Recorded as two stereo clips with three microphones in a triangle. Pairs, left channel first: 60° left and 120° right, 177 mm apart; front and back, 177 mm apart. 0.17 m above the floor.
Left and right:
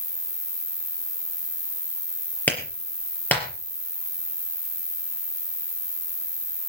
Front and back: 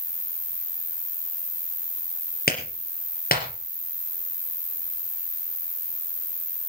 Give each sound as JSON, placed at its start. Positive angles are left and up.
{"t": 0.0, "sound": "an insect", "azimuth_deg": -155, "distance_m": 1.4}
{"t": 2.5, "sound": "a clap", "azimuth_deg": -20, "distance_m": 4.0}